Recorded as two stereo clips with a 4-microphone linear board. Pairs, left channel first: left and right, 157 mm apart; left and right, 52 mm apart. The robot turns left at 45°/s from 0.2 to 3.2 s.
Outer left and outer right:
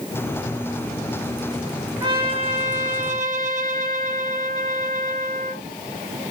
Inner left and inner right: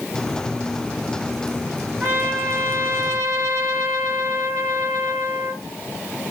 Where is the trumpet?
35° right, 1.3 m; by 5.6 s 90° right, 1.3 m.